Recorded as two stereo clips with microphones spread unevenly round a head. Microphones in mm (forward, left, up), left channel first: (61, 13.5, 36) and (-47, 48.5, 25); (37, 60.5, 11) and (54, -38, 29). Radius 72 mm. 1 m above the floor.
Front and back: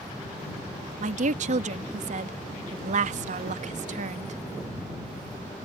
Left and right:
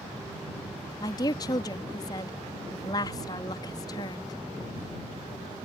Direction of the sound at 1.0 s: 155° left.